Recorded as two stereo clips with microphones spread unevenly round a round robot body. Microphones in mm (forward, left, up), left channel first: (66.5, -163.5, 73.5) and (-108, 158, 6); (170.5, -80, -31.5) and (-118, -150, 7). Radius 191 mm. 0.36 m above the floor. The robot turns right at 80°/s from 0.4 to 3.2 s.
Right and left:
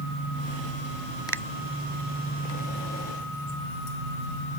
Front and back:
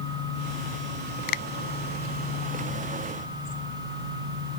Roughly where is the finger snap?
Ahead.